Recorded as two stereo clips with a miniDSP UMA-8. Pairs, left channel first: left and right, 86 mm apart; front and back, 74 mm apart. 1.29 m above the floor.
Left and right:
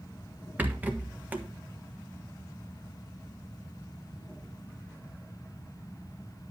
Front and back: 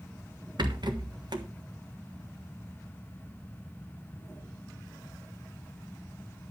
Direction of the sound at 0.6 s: 160° right.